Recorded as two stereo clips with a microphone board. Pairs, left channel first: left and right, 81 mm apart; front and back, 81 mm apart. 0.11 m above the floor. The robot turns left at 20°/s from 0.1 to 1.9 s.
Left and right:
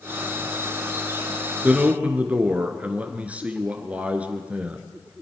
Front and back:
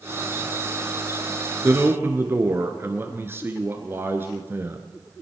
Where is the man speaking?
145° right, 1.3 m; by 4.8 s 150° right, 1.3 m.